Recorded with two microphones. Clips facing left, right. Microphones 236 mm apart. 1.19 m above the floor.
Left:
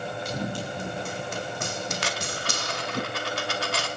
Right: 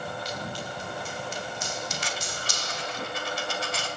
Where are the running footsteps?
55° left (ahead or behind), 4 m; by 3.0 s 60° left (ahead or behind), 2.5 m.